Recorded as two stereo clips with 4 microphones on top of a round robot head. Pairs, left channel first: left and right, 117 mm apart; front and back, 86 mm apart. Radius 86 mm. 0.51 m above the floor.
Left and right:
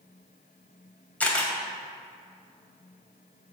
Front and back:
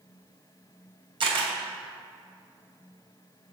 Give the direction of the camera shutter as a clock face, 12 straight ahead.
6 o'clock.